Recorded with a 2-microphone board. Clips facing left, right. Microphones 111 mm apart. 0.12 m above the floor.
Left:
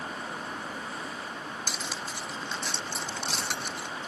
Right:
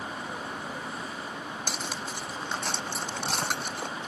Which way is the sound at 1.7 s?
50° right (ahead or behind).